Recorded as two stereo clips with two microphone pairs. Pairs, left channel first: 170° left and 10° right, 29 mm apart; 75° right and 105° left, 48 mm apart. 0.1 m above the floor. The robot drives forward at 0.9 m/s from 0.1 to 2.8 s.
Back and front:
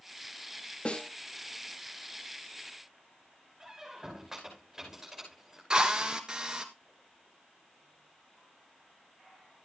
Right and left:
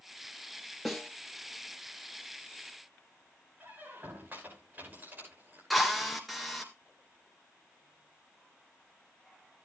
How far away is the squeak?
About 6 m.